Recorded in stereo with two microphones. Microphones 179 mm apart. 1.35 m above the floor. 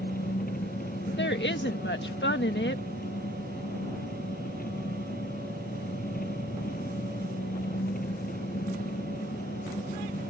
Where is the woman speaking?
85° left.